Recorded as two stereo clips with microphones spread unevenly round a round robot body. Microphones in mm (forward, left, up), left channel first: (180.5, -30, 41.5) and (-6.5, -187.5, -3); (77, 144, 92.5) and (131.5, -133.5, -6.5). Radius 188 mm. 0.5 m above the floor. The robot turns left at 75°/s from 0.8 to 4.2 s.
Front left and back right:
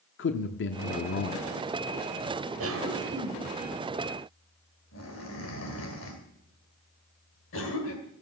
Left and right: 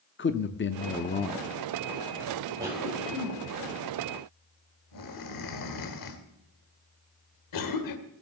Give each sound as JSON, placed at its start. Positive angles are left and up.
{"t": 0.2, "sound": "a man speaking", "azimuth_deg": 45, "distance_m": 0.9}
{"t": 2.6, "sound": "a cough", "azimuth_deg": -145, "distance_m": 2.5}